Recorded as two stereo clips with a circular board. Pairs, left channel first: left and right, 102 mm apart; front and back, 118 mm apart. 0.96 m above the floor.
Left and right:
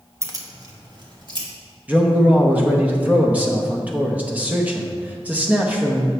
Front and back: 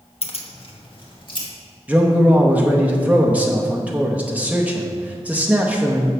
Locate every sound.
0.2 s keys jangling: 25° right, 0.7 m; by 1.5 s 50° right, 1.5 m
1.9 s a man speaking: 130° right, 0.8 m